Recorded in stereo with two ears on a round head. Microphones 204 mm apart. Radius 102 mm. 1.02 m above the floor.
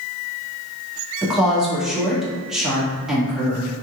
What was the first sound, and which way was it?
A woman speaking, centre (ahead or behind).